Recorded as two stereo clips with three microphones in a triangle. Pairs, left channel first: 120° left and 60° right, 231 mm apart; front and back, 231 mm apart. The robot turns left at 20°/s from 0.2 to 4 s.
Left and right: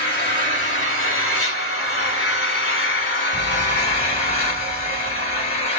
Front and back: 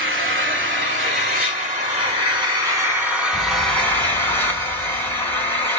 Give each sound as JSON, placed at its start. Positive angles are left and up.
{"t": 0.0, "sound": "an engine running", "azimuth_deg": 155, "distance_m": 0.9}
{"t": 3.3, "sound": "a fire alarm", "azimuth_deg": -155, "distance_m": 1.9}